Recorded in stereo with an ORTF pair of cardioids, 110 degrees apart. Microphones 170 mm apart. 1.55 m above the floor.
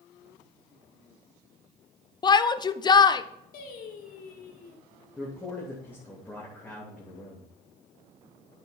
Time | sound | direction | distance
2.2 | a shout | 25° left | 0.8 m
3.5 | singing | 55° left | 2.5 m
5.2 | a man speaking | 10° left | 2.5 m